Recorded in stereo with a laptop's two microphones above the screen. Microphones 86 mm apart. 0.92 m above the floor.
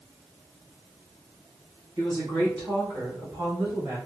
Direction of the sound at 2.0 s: 60° right (ahead or behind).